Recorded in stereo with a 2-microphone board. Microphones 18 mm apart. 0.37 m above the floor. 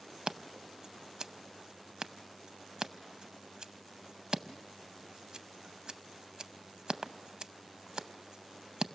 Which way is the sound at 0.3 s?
45° right (ahead or behind).